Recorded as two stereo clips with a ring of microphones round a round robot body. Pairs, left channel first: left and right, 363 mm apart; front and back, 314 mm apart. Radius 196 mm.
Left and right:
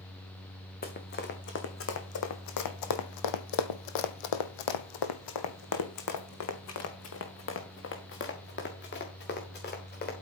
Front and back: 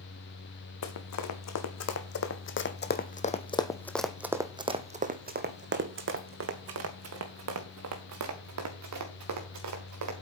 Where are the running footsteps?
25° left, 2 m; by 10.1 s 155° left, 4 m.